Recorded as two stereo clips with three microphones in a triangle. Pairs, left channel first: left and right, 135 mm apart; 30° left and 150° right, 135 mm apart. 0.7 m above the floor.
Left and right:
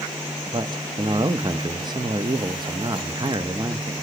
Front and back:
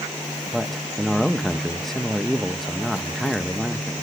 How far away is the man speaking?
About 0.5 m.